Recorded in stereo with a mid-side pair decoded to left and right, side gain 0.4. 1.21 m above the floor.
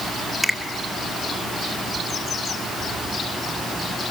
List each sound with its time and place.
0.4 s a finger snap: 10° right, 2 m